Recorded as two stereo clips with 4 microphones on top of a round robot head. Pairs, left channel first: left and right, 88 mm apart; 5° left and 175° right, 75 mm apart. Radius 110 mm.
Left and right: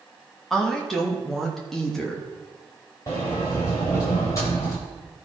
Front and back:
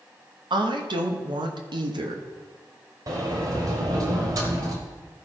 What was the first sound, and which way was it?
A woman speaking, 175° left.